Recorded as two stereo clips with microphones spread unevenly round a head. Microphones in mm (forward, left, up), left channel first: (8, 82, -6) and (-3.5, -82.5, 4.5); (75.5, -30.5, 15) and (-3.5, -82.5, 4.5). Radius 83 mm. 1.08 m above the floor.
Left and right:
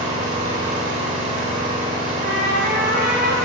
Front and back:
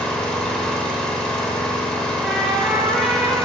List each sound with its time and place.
0.0 s an engine running: 45° right, 2 m
2.2 s a trumpet: 60° right, 4.5 m